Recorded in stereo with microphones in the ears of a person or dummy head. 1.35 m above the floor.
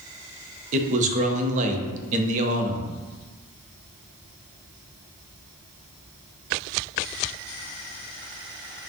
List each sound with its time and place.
0.7 s a man speaking: 40° right (ahead or behind), 0.6 m